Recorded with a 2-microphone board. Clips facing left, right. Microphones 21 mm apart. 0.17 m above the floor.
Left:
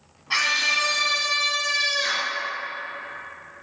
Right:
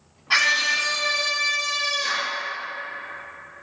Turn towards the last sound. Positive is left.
turn(degrees=65)  # may be behind; listen again after turning